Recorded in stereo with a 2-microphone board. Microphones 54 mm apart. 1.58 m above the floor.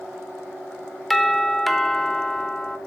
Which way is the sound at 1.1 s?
5° left (ahead or behind).